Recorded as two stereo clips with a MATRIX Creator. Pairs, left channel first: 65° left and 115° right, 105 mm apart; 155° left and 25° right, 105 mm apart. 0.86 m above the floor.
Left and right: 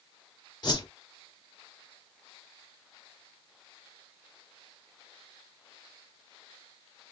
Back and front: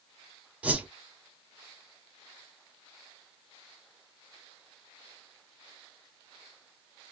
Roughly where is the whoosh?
Ahead left.